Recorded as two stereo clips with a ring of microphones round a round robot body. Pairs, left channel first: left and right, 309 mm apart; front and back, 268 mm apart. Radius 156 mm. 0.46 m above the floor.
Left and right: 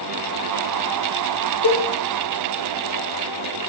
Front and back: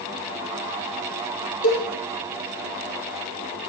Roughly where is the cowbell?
Ahead left.